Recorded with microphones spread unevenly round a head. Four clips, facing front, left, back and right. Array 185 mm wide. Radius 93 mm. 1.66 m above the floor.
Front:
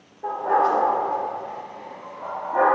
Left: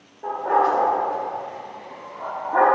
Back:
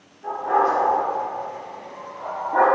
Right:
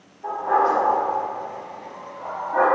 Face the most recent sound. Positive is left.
turn(degrees=135)